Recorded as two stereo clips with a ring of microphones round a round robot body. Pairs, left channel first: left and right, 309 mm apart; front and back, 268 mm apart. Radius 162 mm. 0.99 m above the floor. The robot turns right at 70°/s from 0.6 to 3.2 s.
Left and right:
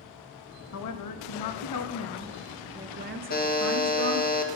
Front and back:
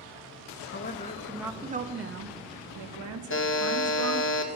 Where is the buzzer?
35° left, 1.4 m.